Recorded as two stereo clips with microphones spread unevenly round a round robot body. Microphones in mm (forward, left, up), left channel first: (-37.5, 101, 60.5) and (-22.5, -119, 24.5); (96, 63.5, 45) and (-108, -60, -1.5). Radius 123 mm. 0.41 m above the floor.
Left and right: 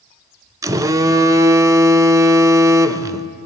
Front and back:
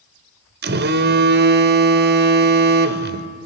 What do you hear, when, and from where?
0.6 s a phone buzzing: 150° right, 1.1 m